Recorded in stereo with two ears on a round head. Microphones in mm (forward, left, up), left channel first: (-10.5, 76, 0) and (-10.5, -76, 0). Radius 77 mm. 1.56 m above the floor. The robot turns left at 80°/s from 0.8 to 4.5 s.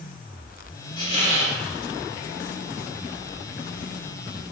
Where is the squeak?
125° left, 0.9 m; by 1.6 s 80° left, 0.9 m.